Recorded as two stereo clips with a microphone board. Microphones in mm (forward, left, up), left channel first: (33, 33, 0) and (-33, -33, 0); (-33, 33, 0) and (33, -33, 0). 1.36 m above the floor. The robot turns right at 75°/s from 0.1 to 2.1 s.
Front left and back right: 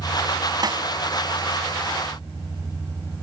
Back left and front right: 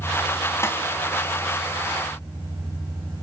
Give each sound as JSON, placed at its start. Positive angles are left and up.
{"t": 0.6, "sound": "a snare drum", "azimuth_deg": -170, "distance_m": 2.5}